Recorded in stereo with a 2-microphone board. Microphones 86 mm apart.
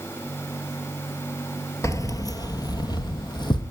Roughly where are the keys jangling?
Left.